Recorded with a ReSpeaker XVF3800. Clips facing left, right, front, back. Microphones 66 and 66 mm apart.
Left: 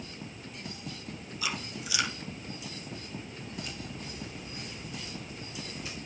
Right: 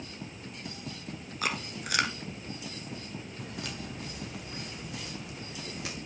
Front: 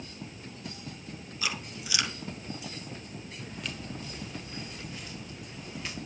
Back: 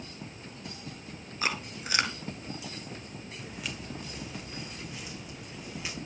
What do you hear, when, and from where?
1.4 s chewing: 130° right, 1.6 m
3.4 s footsteps: 95° right, 2.5 m